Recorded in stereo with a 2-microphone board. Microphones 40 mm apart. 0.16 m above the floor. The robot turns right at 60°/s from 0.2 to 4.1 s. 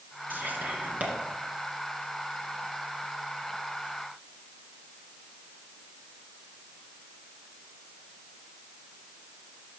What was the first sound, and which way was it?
Whispering, 50° right (ahead or behind).